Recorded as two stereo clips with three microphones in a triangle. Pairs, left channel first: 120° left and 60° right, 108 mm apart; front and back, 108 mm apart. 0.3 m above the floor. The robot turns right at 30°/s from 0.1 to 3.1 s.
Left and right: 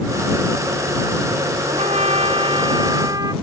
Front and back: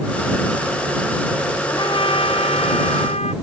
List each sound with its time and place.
1.7 s a trumpet: 50° right; by 3.3 s 5° right